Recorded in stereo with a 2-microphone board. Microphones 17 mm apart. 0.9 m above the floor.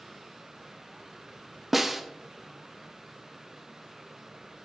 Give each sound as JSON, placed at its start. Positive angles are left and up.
{"t": 1.7, "sound": "a snare drum", "side_deg": -5, "distance_m": 0.6}